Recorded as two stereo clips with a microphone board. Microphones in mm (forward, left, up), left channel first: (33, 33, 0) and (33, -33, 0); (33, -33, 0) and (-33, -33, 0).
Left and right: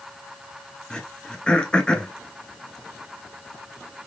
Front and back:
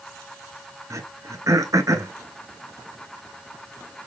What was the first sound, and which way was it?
Throat clearing, 165° left.